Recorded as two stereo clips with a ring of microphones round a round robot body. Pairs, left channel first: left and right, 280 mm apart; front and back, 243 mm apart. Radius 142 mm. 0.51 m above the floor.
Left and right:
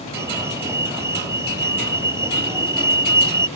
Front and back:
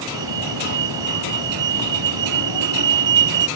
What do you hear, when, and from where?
0.1 s a fire alarm: 170° right